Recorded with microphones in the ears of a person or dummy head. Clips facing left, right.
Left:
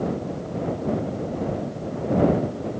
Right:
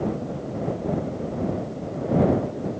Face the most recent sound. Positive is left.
No sound to turn to.